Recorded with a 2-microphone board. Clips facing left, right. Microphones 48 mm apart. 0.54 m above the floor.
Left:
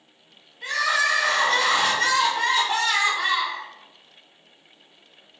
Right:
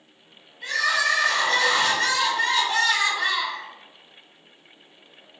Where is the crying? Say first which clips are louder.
Even; 15° left (ahead or behind), 1.1 m.